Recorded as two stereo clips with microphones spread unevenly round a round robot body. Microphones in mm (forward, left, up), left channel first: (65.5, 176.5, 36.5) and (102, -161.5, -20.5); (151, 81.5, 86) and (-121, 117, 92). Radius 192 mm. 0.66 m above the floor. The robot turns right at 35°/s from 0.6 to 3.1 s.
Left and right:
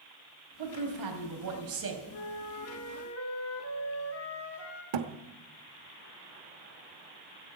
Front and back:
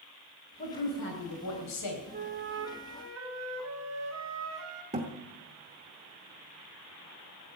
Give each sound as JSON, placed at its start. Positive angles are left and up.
{"t": 0.6, "sound": "a woman speaking", "azimuth_deg": -75, "distance_m": 3.5}
{"t": 2.1, "sound": "a flute", "azimuth_deg": 115, "distance_m": 1.6}
{"t": 4.9, "sound": "a thud", "azimuth_deg": -115, "distance_m": 0.9}